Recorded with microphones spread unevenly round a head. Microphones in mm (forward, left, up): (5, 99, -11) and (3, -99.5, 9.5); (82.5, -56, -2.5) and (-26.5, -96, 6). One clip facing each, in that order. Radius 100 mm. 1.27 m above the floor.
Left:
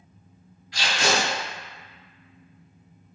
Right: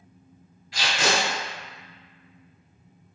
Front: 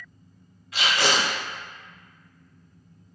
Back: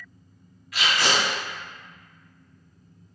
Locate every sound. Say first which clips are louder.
0.7 s tape being pulled: left 1 dB, front 1 dB; 40° right, 1.8 m